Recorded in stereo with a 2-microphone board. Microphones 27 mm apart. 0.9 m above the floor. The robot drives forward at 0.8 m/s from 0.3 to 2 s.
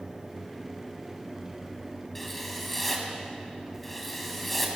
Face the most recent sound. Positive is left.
turn(degrees=10)  # may be behind; listen again after turning